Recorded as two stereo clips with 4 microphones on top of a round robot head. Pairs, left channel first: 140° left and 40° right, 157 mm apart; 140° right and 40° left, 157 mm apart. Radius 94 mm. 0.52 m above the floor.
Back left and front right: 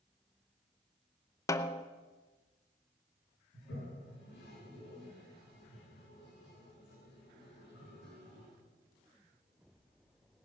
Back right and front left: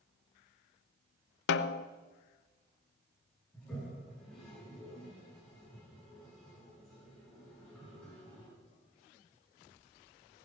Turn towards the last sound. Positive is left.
turn(degrees=135)